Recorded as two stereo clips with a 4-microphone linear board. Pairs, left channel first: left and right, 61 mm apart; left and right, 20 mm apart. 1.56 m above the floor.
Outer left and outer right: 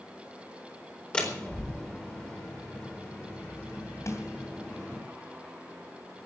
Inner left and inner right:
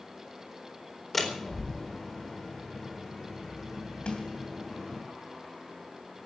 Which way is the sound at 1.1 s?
15° left (ahead or behind).